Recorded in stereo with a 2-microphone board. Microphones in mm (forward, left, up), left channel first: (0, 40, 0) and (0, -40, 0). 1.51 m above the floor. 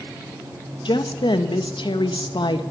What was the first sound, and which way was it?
A woman speaking, 80° left.